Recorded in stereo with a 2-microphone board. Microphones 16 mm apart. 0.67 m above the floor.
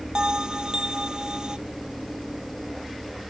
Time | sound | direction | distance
0.1 | a bell | 45° right (ahead or behind) | ?